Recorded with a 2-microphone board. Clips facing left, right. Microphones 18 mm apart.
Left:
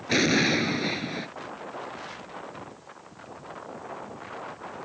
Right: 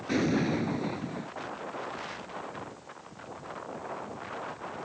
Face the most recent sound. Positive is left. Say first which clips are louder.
# left 6 dB
turn(degrees=60)  # may be behind; listen again after turning